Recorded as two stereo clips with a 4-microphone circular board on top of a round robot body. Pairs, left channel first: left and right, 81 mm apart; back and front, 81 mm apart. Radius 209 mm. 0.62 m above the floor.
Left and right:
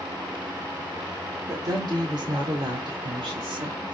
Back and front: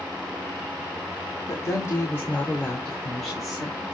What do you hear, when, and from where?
1.5 s a woman speaking: 130° right, 2.5 m; by 3.9 s 80° right, 2.5 m